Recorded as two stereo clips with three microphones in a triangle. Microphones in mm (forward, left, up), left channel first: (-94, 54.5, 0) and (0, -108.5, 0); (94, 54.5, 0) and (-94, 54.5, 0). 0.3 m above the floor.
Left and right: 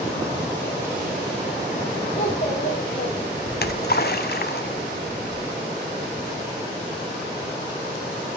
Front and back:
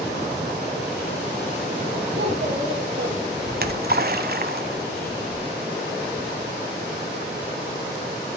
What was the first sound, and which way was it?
A child speaking, 165° left.